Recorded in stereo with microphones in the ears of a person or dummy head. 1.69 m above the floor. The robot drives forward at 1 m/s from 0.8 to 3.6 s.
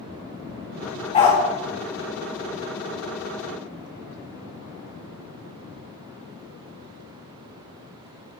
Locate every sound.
1.1 s a dog barking: 35° left (ahead or behind), 1.8 m; by 1.4 s 30° left (ahead or behind), 2.0 m